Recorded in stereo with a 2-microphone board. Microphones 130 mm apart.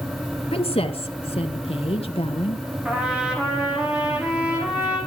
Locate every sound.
0.5 s a woman speaking: 50° left (ahead or behind), 2.5 m
2.9 s a trumpet: 5° right (ahead or behind), 8.5 m